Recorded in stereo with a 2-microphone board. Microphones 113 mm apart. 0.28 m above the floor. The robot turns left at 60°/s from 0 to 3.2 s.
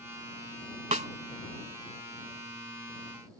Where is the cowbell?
I don't hear a cowbell.